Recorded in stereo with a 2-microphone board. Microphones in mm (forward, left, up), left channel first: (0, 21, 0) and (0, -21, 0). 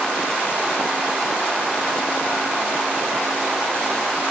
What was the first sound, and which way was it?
Only background noise.